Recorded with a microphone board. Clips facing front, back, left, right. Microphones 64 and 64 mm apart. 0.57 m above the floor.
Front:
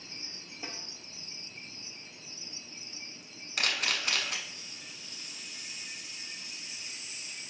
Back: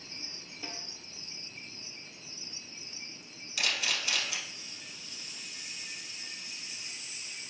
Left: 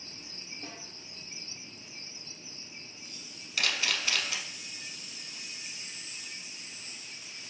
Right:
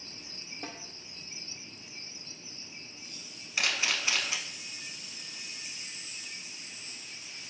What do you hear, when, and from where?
0.6 s a snare drum: 75° right, 0.5 m
3.6 s a camera shutter: 25° right, 0.8 m